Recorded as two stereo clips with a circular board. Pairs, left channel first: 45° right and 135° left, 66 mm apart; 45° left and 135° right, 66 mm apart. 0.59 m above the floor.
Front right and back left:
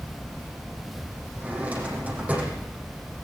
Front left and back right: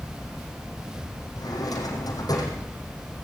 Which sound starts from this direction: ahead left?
A drawer, at 1.4 s.